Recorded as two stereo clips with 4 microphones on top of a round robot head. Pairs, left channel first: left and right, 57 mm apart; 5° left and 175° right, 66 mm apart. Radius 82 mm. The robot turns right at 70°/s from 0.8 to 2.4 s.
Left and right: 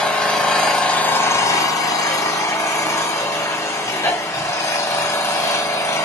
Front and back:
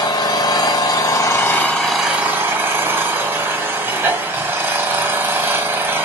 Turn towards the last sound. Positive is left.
turn(degrees=125)